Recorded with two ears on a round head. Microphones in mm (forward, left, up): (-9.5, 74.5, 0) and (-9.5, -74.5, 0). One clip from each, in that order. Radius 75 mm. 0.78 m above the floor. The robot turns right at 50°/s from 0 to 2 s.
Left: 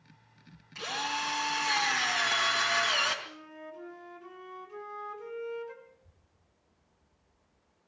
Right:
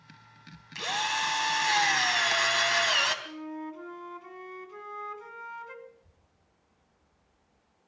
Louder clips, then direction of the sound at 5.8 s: Right 6 dB; 60° right (ahead or behind).